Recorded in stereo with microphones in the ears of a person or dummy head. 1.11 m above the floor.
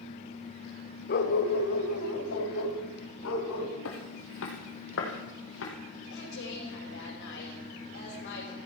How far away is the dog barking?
About 1.4 m.